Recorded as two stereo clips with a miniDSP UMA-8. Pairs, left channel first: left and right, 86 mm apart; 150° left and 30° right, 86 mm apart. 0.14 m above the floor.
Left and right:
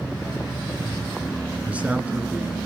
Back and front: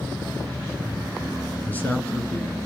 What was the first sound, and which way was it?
A man speaking, 155° right.